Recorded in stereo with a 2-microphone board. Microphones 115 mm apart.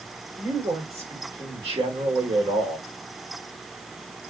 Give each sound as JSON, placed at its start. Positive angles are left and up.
{"t": 0.4, "sound": "a man speaking", "side_deg": -55, "distance_m": 4.0}